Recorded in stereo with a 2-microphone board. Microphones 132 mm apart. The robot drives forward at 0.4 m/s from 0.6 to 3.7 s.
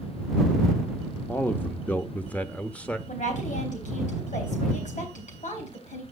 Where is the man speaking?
15° left (ahead or behind), 0.7 m; by 3.0 s 10° left (ahead or behind), 1.1 m.